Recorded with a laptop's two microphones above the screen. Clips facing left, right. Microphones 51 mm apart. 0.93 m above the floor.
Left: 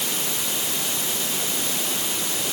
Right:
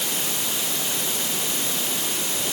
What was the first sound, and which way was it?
Only background noise.